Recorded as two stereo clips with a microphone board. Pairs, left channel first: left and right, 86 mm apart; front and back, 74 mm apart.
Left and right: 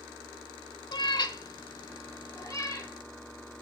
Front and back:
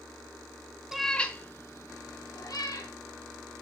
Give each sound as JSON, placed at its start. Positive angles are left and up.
{"t": 0.9, "sound": "a cat meowing", "azimuth_deg": 95, "distance_m": 0.6}